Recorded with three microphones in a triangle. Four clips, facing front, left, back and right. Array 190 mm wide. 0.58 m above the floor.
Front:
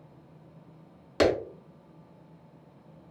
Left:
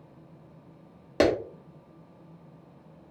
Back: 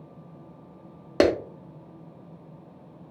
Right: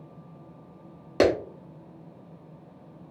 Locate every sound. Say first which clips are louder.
1.2 s a clap: right 2 dB, back 3 dB; straight behind, 0.9 m